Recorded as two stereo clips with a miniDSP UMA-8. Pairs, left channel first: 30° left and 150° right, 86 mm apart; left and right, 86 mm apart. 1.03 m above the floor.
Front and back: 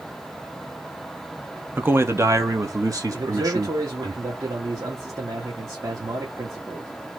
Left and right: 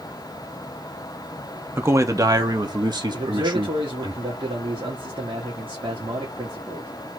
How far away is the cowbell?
No cowbell in this recording.